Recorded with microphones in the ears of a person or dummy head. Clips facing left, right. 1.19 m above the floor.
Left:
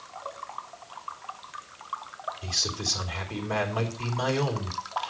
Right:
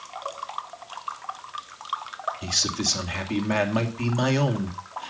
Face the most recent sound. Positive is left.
turn(degrees=-75)  # may be behind; listen again after turning